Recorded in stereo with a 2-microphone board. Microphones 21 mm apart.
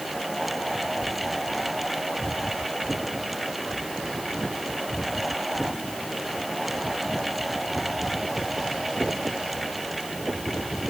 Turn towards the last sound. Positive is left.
No sound to turn to.